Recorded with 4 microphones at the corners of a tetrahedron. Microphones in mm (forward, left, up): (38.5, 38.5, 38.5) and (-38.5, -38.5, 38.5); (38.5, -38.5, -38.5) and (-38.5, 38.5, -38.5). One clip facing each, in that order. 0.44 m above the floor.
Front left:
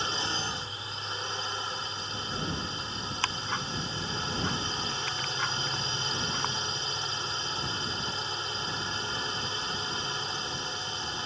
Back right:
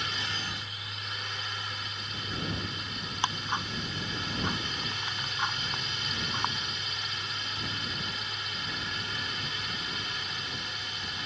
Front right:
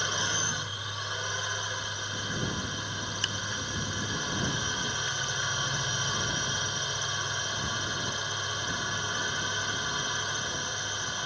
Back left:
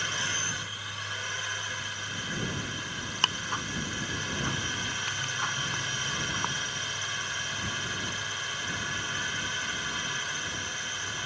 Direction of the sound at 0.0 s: 10° left.